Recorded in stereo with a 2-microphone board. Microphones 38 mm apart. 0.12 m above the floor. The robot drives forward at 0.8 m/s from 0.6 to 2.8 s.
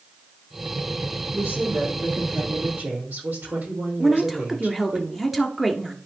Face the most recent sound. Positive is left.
turn(degrees=-5)  # may be behind; listen again after turning